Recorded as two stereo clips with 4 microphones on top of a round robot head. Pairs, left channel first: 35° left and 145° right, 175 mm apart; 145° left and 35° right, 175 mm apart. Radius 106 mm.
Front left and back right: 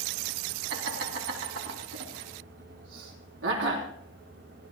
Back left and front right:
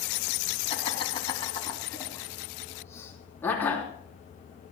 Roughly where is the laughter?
Behind.